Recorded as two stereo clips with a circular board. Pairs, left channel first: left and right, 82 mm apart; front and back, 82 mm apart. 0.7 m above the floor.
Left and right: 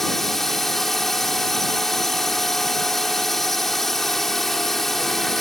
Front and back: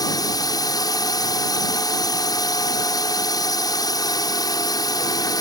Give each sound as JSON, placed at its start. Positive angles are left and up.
{"t": 0.0, "sound": "a drone", "azimuth_deg": 5}